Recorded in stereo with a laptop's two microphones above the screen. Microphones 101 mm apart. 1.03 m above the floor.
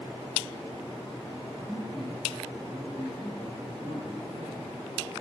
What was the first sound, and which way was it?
A man speaking, 30° left (ahead or behind).